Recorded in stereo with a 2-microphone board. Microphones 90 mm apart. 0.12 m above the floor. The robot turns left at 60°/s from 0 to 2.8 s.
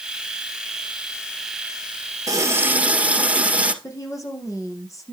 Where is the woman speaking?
40° left (ahead or behind), 4.5 m.